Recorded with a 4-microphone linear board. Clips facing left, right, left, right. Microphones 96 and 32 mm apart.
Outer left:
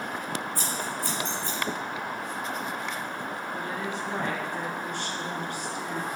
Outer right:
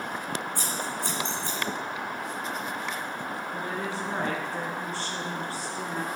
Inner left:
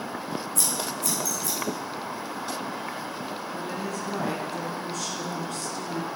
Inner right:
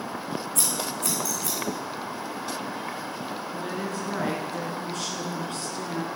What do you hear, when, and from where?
0.6 s scissors: 65° right (ahead or behind), 2.5 m
3.5 s a woman speaking: 35° right (ahead or behind), 1.6 m